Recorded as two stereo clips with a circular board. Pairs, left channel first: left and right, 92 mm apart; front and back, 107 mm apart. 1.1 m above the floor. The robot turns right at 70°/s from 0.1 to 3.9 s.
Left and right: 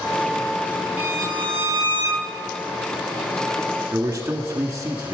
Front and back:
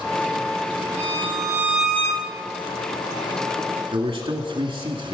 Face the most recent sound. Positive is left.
turn(degrees=-150)